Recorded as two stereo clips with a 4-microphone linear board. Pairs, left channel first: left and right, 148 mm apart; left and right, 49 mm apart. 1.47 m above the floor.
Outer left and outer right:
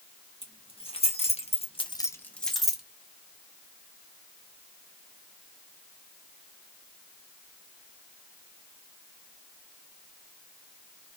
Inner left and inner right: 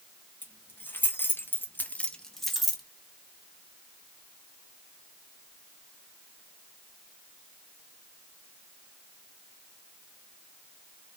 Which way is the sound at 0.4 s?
35° left (ahead or behind).